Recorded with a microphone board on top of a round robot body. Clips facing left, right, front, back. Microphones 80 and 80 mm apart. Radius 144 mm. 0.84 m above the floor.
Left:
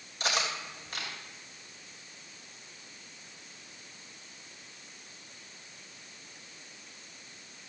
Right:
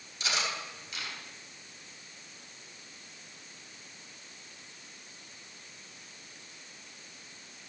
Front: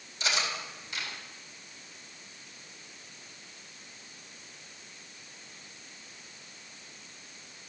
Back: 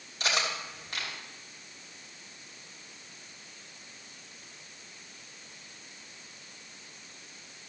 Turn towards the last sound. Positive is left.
turn(degrees=140)